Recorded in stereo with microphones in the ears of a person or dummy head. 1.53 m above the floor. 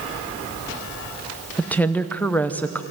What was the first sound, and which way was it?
A woman speaking, 10° left (ahead or behind).